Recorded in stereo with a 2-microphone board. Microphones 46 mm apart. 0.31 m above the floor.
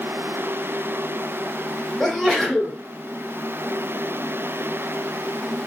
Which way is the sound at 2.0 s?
Centre (ahead or behind).